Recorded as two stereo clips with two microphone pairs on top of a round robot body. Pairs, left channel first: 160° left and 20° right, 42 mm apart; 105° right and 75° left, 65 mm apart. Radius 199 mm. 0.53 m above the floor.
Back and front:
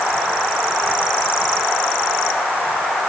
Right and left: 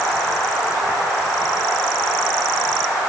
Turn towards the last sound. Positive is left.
No sound to turn to.